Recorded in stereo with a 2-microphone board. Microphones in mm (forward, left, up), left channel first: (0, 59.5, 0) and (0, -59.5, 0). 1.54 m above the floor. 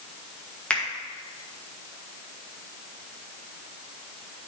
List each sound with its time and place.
0.7 s a finger snap: 10° left (ahead or behind), 1.8 m